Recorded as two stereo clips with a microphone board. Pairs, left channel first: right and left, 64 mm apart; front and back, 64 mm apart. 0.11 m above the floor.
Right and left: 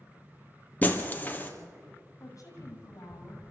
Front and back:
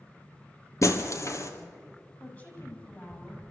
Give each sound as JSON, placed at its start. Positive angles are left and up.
{"t": 0.8, "sound": "breaking glass", "azimuth_deg": -30, "distance_m": 1.9}
{"t": 2.2, "sound": "a woman speaking", "azimuth_deg": -60, "distance_m": 5.0}